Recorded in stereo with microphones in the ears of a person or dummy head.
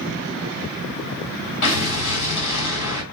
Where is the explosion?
75° left (ahead or behind), 3 m.